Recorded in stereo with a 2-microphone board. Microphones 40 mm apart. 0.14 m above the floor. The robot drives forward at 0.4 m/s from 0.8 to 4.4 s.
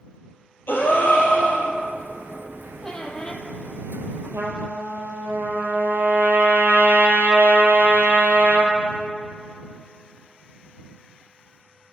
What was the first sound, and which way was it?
A gasp, 65° left (ahead or behind).